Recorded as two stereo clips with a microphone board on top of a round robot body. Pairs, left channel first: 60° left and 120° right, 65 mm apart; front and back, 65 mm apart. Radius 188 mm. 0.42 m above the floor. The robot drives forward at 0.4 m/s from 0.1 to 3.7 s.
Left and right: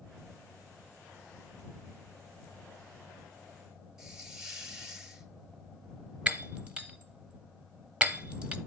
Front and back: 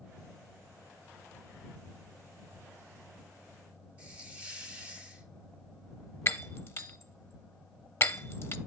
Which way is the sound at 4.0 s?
175° left.